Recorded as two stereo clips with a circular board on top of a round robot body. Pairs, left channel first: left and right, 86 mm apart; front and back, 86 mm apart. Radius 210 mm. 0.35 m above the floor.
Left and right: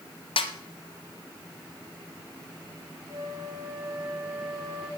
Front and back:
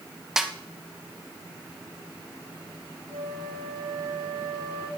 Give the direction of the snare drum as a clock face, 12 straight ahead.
9 o'clock.